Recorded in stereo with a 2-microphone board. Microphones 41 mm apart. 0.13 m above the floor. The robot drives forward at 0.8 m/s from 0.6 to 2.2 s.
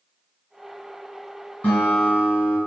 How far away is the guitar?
About 2.0 m.